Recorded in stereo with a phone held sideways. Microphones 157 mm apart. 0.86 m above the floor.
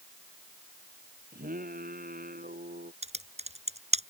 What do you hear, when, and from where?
1.3 s singing: 65° right (ahead or behind)
3.0 s typing on a keyboard: 45° right (ahead or behind)